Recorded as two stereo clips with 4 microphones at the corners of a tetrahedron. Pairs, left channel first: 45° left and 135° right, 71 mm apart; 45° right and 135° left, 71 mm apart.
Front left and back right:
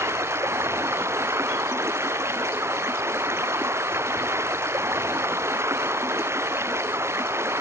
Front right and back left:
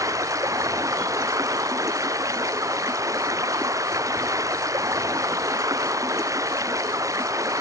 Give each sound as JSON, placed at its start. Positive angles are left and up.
{"t": 0.0, "sound": "running water", "azimuth_deg": 175}